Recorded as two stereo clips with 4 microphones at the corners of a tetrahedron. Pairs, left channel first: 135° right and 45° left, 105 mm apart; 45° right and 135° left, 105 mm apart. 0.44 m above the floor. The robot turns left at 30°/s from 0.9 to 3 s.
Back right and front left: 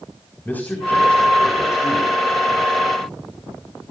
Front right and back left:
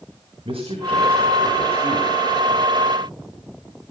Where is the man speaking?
155° left, 4 m; by 2.1 s 115° left, 4 m.